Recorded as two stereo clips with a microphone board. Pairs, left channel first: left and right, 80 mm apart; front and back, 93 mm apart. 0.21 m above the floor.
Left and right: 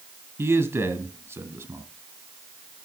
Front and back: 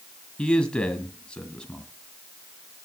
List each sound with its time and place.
0.4 s a man speaking: 70° right, 1.8 m